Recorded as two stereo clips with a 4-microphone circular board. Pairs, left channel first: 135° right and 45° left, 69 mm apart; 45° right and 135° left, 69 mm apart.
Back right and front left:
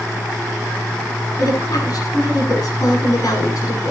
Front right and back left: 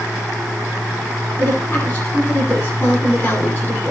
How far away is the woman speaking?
About 8 m.